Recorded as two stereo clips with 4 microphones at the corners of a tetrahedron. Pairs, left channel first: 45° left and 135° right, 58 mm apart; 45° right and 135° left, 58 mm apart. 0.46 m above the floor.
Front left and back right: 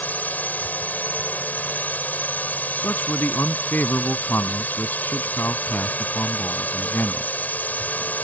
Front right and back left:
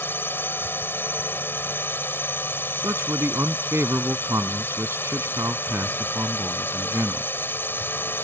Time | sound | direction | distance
0.0 | a drone | 5° right | ?
2.8 | a man speaking | 95° left | ?